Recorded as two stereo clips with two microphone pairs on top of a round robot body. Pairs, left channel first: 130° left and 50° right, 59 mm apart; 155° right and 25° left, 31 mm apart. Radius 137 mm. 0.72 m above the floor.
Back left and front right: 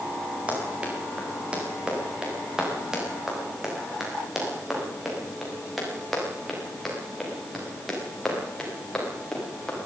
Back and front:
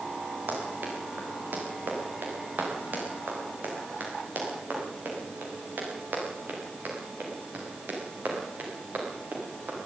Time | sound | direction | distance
0.5 | running footsteps | 15° left | 7.5 m